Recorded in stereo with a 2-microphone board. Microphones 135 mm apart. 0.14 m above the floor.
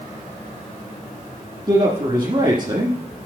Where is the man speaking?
35° right (ahead or behind), 1.4 m.